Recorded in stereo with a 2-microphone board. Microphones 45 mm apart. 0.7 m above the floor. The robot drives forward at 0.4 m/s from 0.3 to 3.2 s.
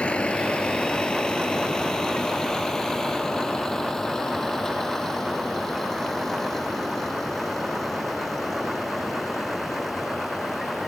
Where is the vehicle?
25° left (ahead or behind); by 10.9 s 5° left (ahead or behind).